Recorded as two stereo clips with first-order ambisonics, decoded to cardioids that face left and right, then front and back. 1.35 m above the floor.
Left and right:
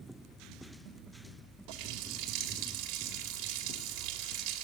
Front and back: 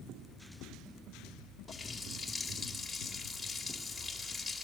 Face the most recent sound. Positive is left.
turn(degrees=-85)